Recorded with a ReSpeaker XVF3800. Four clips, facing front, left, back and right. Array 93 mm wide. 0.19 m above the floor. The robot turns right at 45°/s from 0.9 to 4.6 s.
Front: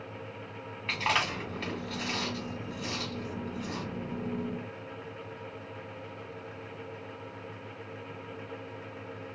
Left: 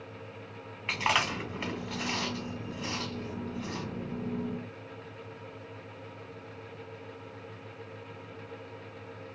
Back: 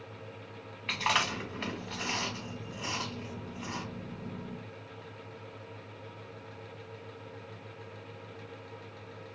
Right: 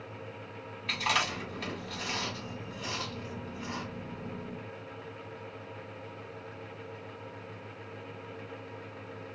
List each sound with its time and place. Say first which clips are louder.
0.9 s chewing: left 2 dB, front 1 dB; 85° left, 1.8 m; by 3.9 s 145° right, 1.8 m